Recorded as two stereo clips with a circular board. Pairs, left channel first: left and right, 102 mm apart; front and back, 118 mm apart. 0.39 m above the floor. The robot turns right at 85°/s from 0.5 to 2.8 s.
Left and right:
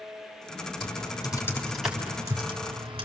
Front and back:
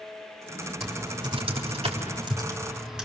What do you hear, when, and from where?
0.8 s typing on a keyboard: 95° left, 3.5 m; by 3.0 s 95° right, 3.5 m